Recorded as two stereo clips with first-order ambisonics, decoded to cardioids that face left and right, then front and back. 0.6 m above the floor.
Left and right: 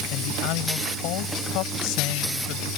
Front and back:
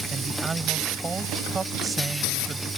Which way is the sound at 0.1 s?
105° left.